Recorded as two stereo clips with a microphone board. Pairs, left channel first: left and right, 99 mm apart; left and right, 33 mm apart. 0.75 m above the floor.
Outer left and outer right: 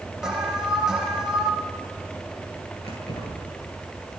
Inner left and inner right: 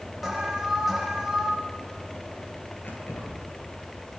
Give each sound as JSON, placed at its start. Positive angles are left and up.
{"t": 0.2, "sound": "an alarm", "side_deg": -5, "distance_m": 5.0}
{"t": 2.8, "sound": "keys jangling", "side_deg": 85, "distance_m": 9.5}